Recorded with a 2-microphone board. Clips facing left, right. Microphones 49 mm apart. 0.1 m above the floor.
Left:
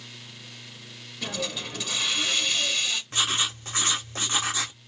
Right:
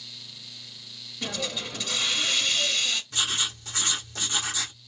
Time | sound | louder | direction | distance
1.2 | a hiss | even | centre (ahead or behind) | 1.3 m
3.1 | writing | left 2 dB | 40° left (ahead or behind) | 1.2 m